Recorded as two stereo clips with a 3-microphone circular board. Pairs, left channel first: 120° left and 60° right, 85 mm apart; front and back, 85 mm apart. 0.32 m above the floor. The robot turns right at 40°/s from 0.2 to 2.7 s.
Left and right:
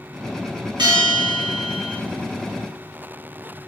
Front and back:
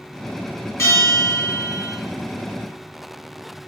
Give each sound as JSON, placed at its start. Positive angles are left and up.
{"t": 0.8, "sound": "a bell", "azimuth_deg": -55, "distance_m": 1.9}